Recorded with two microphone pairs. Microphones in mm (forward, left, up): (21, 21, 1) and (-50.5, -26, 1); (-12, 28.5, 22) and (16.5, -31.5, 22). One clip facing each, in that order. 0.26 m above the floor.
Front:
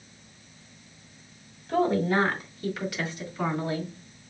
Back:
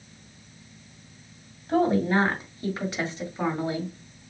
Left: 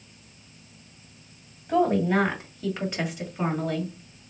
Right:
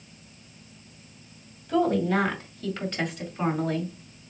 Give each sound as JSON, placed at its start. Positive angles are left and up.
{"t": 1.7, "sound": "a woman speaking", "azimuth_deg": 170, "distance_m": 2.0}